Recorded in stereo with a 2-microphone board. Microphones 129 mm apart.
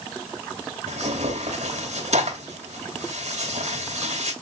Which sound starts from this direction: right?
Tearing paper, at 0.9 s.